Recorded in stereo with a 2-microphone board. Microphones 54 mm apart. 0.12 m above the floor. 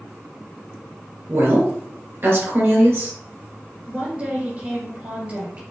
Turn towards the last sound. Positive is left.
turn(degrees=-30)  # may be behind; listen again after turning